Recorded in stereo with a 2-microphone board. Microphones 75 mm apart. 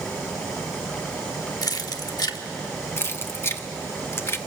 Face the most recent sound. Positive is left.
turn(degrees=30)  # may be behind; listen again after turning